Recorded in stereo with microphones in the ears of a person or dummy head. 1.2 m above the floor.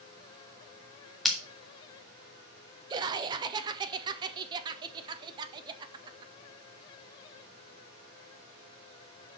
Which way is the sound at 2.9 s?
20° right (ahead or behind).